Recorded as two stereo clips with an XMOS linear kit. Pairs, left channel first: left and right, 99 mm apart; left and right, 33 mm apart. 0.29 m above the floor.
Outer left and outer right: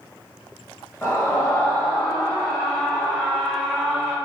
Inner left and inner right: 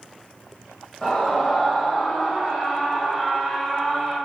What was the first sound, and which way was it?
A scream, 25° left (ahead or behind).